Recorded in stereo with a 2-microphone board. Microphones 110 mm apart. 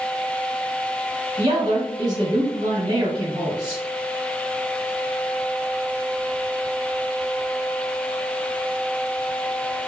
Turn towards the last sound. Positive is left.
turn(degrees=-40)  # may be behind; listen again after turning